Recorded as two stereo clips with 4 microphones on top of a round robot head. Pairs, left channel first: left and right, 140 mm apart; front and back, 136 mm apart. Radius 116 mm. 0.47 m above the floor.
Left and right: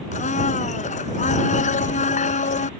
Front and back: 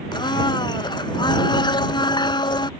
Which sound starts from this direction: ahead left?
A blender, at 0.1 s.